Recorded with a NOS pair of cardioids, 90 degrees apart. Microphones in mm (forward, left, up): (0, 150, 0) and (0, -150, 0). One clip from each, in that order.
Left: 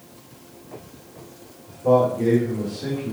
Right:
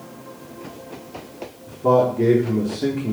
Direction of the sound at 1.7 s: 70° right.